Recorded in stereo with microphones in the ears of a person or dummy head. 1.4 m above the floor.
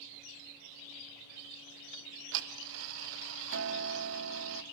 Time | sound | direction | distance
1.9 | ticking | 70° right (ahead or behind) | 0.8 m